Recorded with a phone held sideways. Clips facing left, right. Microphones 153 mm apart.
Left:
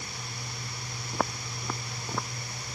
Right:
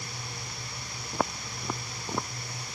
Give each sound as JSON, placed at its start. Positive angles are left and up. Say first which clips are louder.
{"t": 1.1, "sound": "footsteps", "louder": "right 1 dB", "side_deg": -5}